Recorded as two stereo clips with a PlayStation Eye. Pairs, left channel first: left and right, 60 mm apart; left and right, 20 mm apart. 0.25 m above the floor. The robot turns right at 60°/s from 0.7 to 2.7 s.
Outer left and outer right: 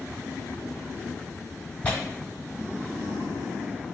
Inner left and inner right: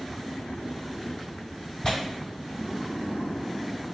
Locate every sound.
1.8 s tearing paper: 20° left (ahead or behind), 1.3 m